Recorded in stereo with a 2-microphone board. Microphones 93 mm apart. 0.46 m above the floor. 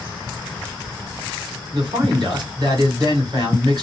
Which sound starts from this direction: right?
A man speaking, at 1.7 s.